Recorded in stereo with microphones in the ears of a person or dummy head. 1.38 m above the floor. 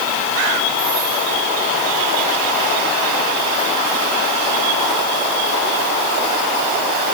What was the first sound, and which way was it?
Only background noise.